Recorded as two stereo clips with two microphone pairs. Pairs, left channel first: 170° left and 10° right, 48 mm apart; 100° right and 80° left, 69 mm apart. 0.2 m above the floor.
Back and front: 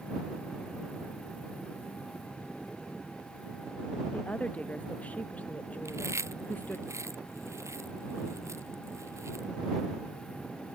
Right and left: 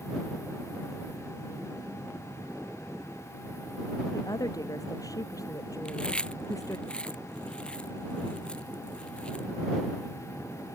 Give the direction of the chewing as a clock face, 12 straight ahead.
1 o'clock.